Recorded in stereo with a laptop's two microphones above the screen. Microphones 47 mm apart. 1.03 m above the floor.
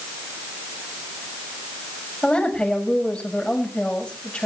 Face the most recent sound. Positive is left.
turn(degrees=25)  # may be behind; listen again after turning